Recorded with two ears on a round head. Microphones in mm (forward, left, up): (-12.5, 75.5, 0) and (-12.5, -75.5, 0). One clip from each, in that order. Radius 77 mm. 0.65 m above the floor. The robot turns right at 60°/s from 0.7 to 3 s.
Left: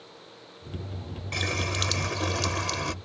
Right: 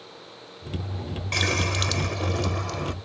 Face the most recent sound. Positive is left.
turn(degrees=75)